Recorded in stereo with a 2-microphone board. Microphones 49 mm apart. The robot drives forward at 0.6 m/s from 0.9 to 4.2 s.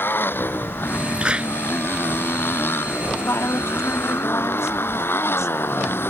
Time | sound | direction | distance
0.0 | a motorcycle | 45° left (ahead or behind) | ?
1.2 | a clap | 20° right (ahead or behind) | ?
3.2 | a woman speaking | 70° left (ahead or behind) | ?